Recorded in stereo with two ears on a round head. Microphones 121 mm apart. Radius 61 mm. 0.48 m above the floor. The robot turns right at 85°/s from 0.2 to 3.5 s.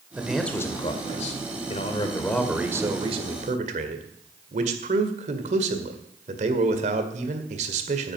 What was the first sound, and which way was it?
A man speaking, 15° right.